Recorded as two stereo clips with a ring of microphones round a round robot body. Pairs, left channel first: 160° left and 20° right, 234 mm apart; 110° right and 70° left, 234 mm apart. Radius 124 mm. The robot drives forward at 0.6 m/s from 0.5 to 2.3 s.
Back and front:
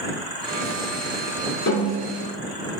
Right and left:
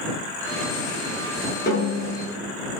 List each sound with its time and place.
1.7 s a snare drum: 165° right, 2 m